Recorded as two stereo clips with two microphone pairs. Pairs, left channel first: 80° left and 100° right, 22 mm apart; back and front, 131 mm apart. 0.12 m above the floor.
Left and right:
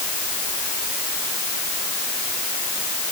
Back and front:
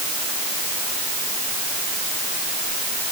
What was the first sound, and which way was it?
Only background noise.